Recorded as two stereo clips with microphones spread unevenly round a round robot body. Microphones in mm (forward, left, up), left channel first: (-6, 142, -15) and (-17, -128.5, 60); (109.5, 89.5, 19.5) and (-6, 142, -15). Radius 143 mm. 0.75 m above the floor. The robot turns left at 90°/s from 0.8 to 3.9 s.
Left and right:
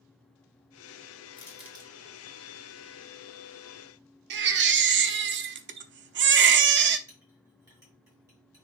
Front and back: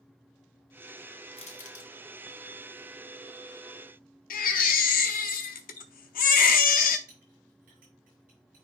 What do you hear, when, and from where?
1.3 s crushing: 30° left, 1.7 m; by 1.9 s 25° right, 1.7 m
4.3 s a baby crying: 35° right, 0.7 m
7.1 s a clink: 175° right, 5.5 m